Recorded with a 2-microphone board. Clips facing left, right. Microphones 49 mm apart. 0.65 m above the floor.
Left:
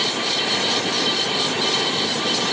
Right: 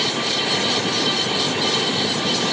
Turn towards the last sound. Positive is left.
No sound to turn to.